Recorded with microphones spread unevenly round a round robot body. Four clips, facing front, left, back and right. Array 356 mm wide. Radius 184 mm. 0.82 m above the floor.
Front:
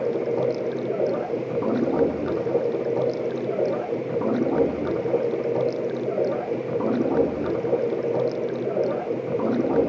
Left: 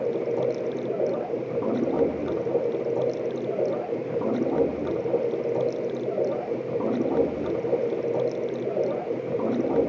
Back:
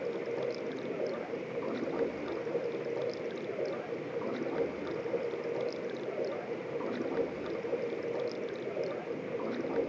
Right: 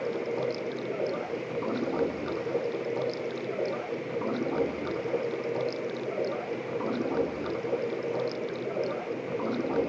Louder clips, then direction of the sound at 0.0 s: Left 5 dB, front 11 dB; 20° left.